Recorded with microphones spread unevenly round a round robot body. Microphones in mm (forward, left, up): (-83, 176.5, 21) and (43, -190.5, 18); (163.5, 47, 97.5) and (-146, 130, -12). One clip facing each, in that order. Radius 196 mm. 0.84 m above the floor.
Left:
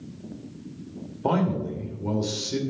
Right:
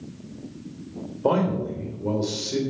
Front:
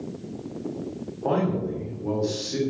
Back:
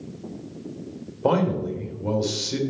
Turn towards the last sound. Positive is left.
turn(degrees=-175)